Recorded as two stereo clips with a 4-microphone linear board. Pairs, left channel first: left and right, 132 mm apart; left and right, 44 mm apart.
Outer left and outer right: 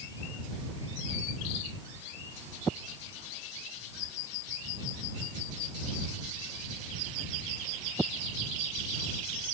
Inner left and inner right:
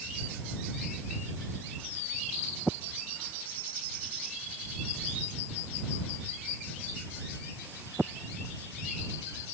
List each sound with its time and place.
Only background noise.